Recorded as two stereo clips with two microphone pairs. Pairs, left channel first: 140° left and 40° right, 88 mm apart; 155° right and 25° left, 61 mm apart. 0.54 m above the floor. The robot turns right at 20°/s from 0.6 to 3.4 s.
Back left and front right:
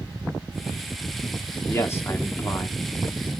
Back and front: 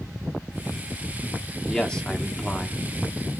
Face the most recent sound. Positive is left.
turn(degrees=170)